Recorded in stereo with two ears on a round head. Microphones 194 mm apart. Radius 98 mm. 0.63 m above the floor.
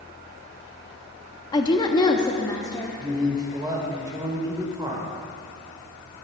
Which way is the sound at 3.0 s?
20° right (ahead or behind).